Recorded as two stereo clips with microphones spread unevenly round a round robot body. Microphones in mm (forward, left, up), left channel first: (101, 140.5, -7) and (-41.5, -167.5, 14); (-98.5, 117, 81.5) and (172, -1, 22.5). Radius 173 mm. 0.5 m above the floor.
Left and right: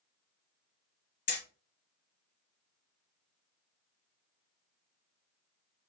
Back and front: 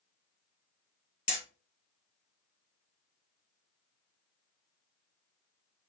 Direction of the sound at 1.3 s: 85° left.